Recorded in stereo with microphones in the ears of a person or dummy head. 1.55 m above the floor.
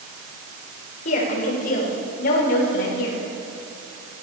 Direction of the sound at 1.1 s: 45° left (ahead or behind).